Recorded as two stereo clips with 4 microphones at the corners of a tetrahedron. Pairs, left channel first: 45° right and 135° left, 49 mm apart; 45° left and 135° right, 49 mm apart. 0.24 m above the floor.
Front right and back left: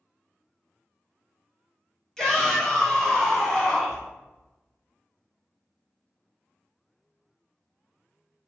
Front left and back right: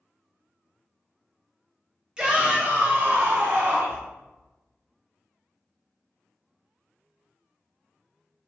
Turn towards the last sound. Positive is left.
turn(degrees=-120)